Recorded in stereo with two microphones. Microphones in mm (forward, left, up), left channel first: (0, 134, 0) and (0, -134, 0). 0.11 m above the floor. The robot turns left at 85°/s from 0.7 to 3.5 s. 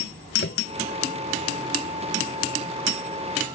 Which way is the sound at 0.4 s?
45° left (ahead or behind).